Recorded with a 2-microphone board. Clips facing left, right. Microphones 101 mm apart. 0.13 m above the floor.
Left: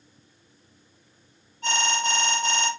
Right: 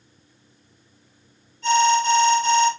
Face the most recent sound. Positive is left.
turn(degrees=60)  # may be behind; listen again after turning